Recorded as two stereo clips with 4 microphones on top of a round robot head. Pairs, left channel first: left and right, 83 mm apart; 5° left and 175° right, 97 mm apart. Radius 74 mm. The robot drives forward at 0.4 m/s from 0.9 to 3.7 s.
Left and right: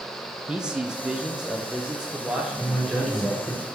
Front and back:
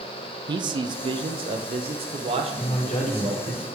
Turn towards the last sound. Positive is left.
turn(degrees=5)